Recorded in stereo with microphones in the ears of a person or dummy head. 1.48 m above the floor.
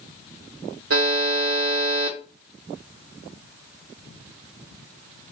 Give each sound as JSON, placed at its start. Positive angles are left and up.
{"t": 0.9, "sound": "a buzzer", "side_deg": -75, "distance_m": 0.9}